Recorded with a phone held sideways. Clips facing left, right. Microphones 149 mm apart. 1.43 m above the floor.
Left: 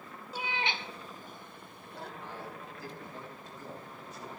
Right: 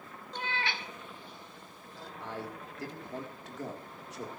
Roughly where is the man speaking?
Right.